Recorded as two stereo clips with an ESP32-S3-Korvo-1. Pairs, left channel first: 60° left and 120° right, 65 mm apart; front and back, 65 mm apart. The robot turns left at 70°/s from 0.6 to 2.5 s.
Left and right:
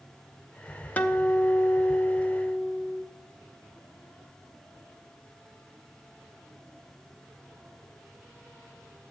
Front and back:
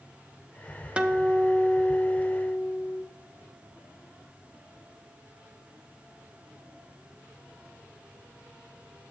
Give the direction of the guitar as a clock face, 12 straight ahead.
8 o'clock.